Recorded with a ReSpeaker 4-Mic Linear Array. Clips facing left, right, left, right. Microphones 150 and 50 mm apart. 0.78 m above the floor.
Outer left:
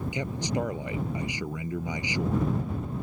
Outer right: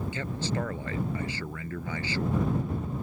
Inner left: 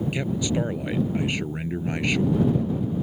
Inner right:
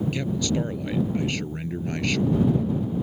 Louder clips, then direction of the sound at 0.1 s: Outer left 4 dB, even; 15° left (ahead or behind).